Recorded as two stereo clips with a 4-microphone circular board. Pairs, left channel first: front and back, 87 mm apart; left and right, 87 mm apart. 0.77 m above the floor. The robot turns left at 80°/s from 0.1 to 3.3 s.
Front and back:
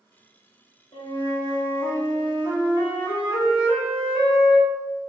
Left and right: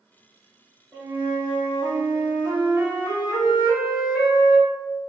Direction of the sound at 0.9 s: 10° left.